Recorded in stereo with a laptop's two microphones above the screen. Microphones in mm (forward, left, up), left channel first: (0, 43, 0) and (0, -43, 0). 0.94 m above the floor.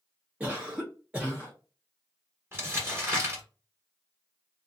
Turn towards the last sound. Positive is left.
turn(degrees=-30)  # may be behind; listen again after turning